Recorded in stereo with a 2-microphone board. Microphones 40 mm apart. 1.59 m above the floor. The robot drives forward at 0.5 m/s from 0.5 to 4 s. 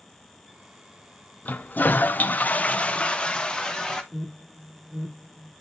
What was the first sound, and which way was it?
A toilet flushing, 40° left (ahead or behind).